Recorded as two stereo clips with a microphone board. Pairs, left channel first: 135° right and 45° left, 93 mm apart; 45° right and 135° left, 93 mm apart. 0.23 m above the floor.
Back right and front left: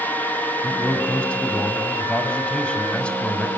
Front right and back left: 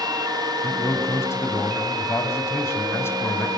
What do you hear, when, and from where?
0.6 s a man speaking: 70° right, 1.6 m